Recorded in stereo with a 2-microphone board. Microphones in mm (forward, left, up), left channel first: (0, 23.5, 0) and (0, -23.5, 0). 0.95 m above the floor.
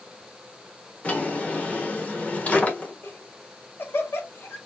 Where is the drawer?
30° left (ahead or behind), 1.3 m.